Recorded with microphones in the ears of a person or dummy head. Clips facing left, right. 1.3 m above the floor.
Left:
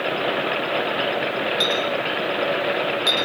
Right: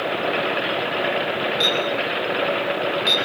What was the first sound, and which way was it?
A clink, 10° left (ahead or behind).